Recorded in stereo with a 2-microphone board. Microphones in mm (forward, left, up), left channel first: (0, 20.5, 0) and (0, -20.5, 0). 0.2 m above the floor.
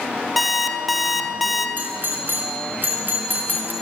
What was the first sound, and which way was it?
An alarm clock, centre (ahead or behind).